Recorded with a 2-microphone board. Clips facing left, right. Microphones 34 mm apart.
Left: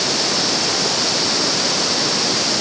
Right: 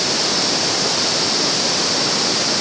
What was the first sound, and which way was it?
Only background noise.